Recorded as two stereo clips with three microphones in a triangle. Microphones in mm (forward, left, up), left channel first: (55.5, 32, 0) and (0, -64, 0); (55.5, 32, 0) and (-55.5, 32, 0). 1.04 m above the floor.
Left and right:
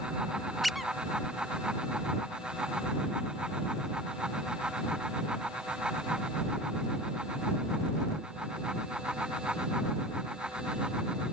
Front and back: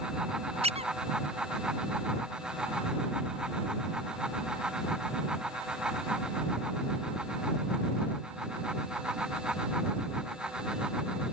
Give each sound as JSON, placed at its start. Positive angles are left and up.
{"t": 0.6, "sound": "a squeak", "azimuth_deg": 150}